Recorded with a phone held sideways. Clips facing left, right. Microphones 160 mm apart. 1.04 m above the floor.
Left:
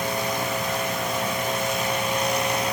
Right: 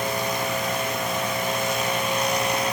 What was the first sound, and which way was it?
Only background noise.